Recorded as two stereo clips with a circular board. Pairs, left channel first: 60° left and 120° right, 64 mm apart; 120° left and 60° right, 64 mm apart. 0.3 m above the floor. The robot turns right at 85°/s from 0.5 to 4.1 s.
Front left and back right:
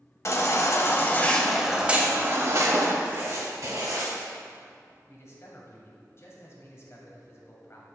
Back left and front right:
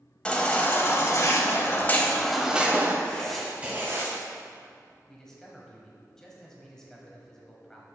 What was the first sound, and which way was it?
A baby crying, 55° left.